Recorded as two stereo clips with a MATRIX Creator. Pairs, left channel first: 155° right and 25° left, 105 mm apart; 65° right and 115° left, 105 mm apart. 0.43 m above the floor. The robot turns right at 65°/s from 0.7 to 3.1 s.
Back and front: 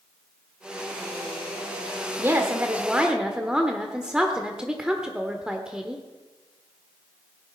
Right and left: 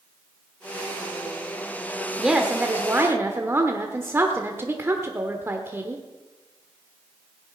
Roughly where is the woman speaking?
Ahead left.